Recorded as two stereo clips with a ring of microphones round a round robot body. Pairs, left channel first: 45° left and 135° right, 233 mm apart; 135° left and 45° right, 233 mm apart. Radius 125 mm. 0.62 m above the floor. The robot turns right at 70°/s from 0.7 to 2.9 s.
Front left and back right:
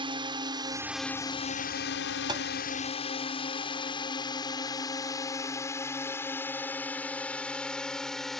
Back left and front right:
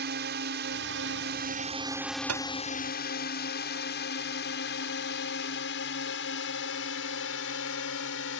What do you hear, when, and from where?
0.0 s a drone: 70° right; by 8.4 s 135° left
2.3 s tapping: 65° right; by 2.5 s 50° right